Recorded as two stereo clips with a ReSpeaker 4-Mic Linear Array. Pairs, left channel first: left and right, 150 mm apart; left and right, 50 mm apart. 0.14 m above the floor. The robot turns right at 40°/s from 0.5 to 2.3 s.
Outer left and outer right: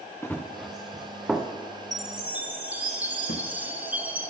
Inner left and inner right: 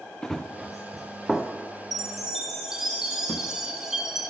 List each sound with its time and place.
0.2 s running footsteps: 15° left (ahead or behind), 0.9 m; by 1.5 s centre (ahead or behind), 1.3 m
1.9 s a chime: centre (ahead or behind), 0.9 m; by 4.3 s 10° right (ahead or behind), 0.9 m
3.3 s a thud: 85° left, 1.4 m